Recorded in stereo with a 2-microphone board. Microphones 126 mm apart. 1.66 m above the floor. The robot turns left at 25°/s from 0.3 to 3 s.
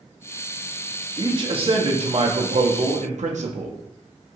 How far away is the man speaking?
About 0.5 m.